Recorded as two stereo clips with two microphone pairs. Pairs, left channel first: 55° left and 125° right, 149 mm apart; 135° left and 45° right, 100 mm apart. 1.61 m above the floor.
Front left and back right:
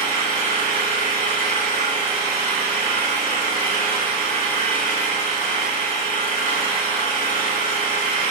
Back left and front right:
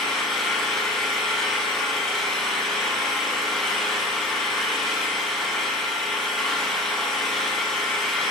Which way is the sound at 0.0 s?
50° left.